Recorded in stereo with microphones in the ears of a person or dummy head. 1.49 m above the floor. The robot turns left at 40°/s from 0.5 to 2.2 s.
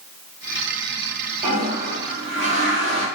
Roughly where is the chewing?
No chewing in this recording.